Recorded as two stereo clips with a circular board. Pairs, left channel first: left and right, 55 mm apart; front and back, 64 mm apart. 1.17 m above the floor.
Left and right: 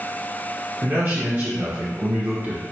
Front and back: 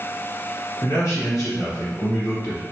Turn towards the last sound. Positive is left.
turn(degrees=-40)